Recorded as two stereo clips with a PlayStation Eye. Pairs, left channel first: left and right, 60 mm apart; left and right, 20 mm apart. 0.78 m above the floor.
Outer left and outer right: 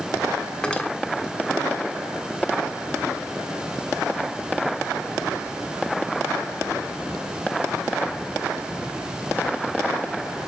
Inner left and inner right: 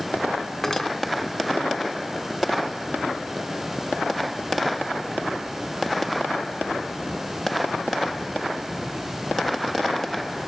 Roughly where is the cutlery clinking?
Centre.